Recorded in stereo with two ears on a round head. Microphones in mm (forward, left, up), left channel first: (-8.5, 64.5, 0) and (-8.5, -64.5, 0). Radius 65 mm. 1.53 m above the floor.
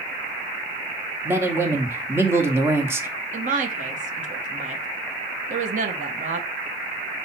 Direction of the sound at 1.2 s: 15° right (ahead or behind).